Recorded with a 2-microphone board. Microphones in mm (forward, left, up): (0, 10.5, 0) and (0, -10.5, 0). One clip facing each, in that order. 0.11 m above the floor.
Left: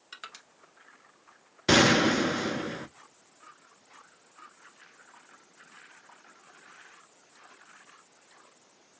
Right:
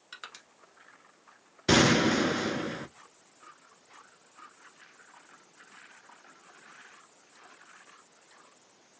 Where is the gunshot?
15° left (ahead or behind), 0.6 m.